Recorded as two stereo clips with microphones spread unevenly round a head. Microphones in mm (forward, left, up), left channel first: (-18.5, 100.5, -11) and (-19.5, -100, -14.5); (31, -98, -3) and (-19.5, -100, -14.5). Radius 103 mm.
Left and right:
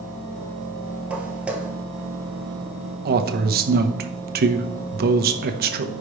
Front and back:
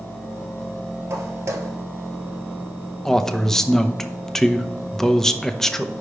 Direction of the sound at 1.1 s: 175° right.